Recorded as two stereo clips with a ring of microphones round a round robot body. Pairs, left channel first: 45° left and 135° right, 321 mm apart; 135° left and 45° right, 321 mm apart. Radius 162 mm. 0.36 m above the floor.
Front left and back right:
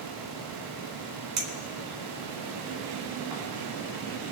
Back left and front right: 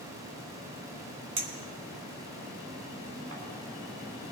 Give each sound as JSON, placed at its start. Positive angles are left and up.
{"t": 1.4, "sound": "a clink", "azimuth_deg": -95, "distance_m": 2.0}